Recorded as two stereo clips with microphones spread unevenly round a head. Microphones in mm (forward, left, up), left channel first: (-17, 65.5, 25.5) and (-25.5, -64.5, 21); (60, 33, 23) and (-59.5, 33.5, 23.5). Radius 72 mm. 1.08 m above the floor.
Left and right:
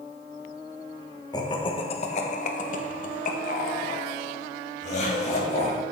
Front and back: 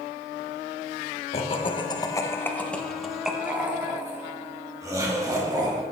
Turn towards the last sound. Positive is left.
turn(degrees=120)